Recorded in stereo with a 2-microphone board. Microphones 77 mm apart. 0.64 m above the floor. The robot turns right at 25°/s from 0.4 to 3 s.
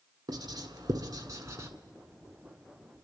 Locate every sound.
0.3 s writing: 65° right (ahead or behind), 1.6 m; by 1.7 s 35° right (ahead or behind), 1.6 m